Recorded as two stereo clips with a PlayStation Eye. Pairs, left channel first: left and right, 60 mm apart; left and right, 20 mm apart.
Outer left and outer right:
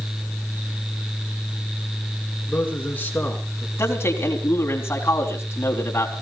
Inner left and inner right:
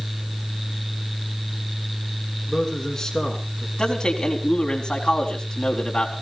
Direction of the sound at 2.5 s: 30° left (ahead or behind).